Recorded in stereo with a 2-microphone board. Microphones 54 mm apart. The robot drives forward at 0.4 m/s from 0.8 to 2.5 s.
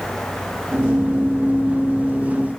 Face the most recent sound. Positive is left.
No sound to turn to.